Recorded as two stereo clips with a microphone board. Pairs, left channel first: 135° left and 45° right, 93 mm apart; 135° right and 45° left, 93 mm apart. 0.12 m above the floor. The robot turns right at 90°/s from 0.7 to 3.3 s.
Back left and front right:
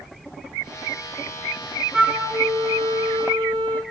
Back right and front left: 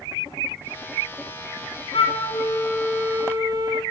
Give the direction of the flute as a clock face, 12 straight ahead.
4 o'clock.